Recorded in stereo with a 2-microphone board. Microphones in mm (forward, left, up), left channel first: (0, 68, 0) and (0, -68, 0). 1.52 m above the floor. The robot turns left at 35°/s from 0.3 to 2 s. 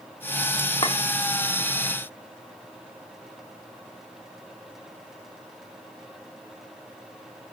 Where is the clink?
40° left (ahead or behind), 2 m; by 1.0 s 45° left (ahead or behind), 2 m.